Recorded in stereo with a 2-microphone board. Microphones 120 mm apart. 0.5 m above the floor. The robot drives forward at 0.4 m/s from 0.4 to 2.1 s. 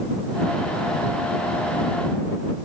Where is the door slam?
No door slam in this recording.